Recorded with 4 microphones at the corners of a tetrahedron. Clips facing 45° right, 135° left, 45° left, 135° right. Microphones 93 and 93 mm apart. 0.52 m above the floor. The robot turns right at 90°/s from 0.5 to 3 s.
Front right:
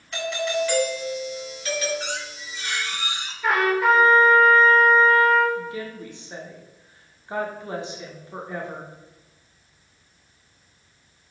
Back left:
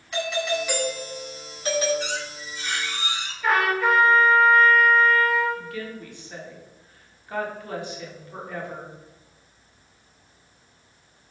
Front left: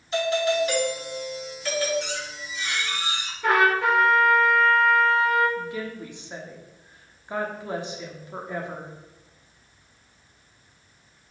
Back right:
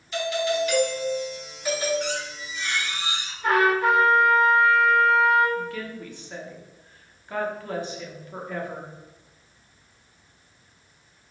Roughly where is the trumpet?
Ahead left.